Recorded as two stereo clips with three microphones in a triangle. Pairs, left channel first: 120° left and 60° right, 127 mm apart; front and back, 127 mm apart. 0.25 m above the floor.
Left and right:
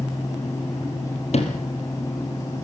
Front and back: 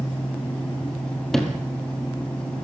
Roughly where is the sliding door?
Left.